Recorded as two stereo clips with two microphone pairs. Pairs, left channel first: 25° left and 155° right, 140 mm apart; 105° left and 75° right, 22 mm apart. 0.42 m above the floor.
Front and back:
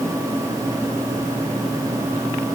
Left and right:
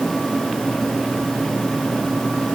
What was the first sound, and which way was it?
Only background noise.